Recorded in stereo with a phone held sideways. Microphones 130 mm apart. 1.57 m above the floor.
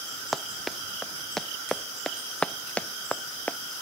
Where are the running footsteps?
Centre (ahead or behind); by 3.6 s 15° left (ahead or behind).